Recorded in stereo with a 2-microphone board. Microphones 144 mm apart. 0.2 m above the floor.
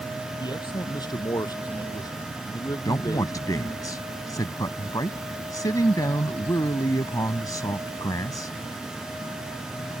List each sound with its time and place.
0.4 s a man speaking: 30° left (ahead or behind); by 3.9 s 25° left (ahead or behind)
2.9 s a man speaking: 25° left (ahead or behind)